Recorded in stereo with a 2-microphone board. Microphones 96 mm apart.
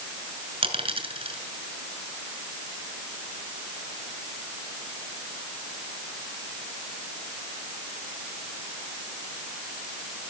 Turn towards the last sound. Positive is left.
turn(degrees=-70)  # may be behind; listen again after turning